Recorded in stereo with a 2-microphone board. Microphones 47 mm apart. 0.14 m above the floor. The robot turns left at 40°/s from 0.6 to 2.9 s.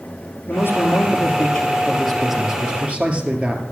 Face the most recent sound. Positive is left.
turn(degrees=-30)